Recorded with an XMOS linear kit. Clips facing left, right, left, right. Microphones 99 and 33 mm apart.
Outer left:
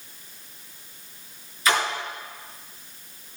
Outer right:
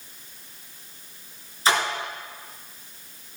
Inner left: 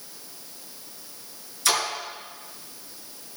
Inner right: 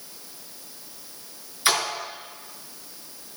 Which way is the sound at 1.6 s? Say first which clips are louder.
Outer right 1 dB, inner right 1 dB; 30° right (ahead or behind).